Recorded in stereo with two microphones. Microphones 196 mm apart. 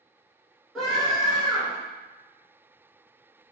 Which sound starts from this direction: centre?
A scream, at 0.8 s.